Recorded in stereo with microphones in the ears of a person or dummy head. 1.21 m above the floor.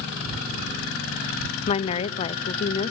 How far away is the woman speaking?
About 0.7 m.